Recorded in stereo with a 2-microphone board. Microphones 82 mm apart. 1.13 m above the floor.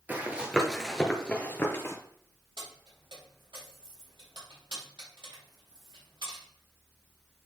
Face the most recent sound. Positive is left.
turn(degrees=-70)  # may be behind; listen again after turning